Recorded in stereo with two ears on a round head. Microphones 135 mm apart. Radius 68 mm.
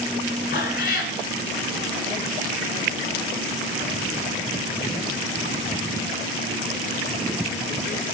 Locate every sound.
0.5 s a cat meowing: 70° left (ahead or behind), 1.1 m